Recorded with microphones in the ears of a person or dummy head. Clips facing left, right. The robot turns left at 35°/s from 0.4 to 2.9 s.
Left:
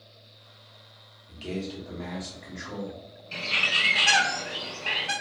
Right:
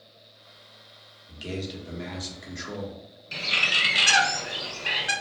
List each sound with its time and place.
1.3 s a man speaking: 10° right, 1.0 m; by 3.0 s 65° right, 1.0 m
3.3 s a bird: 15° right (ahead or behind), 0.6 m